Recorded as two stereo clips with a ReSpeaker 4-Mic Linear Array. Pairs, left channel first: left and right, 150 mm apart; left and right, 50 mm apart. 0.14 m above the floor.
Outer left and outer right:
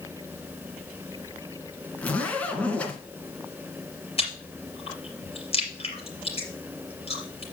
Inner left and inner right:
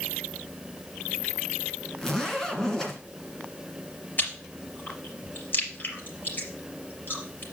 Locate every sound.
2.0 s a zipper: 10° left (ahead or behind), 1.9 m
4.2 s chewing: 40° left (ahead or behind), 3.5 m